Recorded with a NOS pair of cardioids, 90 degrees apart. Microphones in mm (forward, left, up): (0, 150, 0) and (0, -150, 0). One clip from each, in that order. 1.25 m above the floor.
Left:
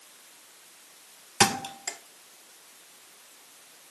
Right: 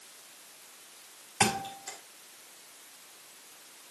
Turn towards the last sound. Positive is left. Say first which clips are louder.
# left 4 dB
turn(degrees=55)